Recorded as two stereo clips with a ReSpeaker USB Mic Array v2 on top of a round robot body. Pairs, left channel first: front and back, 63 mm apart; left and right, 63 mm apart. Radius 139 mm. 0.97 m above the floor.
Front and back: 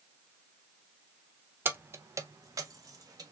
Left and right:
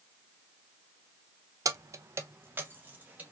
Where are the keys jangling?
120° right, 0.6 m; by 3.3 s 155° right, 1.3 m.